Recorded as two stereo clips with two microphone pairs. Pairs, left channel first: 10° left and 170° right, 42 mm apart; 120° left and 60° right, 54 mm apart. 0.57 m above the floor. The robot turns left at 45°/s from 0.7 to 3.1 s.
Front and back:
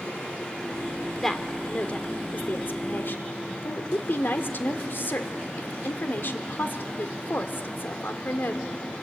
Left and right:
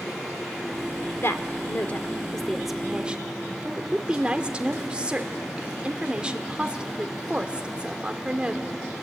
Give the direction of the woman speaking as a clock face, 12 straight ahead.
9 o'clock.